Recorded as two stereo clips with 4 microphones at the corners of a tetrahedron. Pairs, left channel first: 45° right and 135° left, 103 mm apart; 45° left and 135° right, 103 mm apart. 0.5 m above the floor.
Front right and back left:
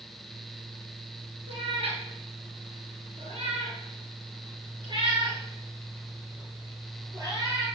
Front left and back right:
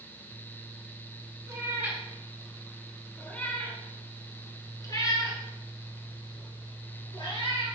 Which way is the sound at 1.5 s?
160° left.